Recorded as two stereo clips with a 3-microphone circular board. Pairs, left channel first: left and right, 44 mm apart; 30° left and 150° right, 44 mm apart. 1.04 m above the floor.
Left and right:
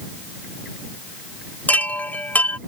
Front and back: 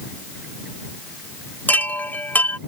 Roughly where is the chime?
Ahead left.